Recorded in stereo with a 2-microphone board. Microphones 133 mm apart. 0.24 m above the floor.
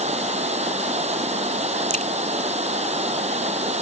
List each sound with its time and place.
0.0 s running water: 60° right (ahead or behind)
1.9 s a crack: 75° right (ahead or behind)